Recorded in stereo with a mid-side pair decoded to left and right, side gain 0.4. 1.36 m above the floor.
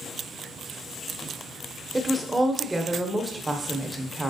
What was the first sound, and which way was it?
A woman speaking, 15° right.